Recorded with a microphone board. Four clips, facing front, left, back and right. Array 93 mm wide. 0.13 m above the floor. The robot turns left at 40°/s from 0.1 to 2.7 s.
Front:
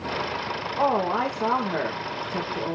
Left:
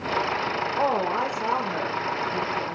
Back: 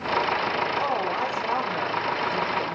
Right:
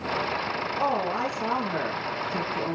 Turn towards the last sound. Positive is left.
turn(degrees=-30)